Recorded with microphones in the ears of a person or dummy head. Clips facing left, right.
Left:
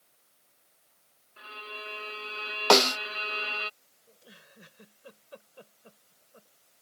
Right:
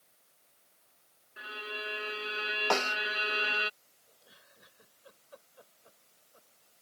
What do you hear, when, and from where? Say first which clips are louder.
1.4 s a violin: right 3 dB; 10° right (ahead or behind)
2.7 s a snare drum: left 10 dB; 70° left (ahead or behind)
4.1 s a giggle: left 7 dB; 45° left (ahead or behind)